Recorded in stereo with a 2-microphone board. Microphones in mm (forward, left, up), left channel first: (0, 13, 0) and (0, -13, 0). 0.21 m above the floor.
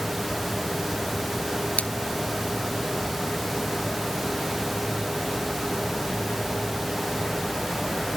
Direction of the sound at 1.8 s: 65° left (ahead or behind).